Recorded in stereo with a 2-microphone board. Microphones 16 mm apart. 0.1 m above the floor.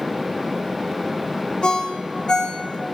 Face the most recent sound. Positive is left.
turn(degrees=50)  # may be behind; listen again after turning